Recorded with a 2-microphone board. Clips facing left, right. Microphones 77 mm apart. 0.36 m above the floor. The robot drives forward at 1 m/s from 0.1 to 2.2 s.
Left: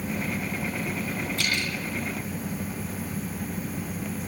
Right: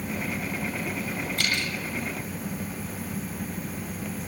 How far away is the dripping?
About 8.5 m.